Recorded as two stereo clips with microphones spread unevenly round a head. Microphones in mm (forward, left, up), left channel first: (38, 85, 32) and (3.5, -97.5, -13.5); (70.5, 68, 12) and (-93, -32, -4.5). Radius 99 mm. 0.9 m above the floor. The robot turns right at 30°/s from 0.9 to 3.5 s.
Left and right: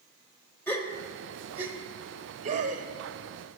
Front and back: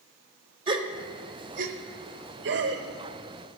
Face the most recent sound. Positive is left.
turn(degrees=-135)